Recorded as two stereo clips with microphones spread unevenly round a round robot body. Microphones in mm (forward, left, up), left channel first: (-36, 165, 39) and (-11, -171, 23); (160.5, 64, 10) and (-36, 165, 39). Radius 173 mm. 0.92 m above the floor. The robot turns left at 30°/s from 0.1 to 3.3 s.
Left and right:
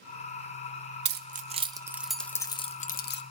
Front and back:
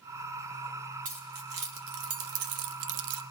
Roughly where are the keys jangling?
Behind right.